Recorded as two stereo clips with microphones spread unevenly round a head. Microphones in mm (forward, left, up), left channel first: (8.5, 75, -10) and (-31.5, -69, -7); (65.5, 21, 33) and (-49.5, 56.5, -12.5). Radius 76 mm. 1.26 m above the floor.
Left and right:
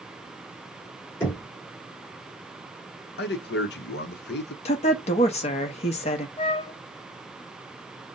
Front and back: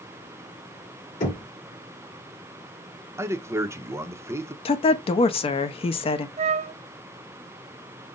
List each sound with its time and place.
1.2 s knocking: straight ahead, 2.5 m
3.2 s a man speaking: 95° left, 0.7 m
4.7 s a woman speaking: 35° left, 0.7 m
6.4 s a flute: 130° left, 0.5 m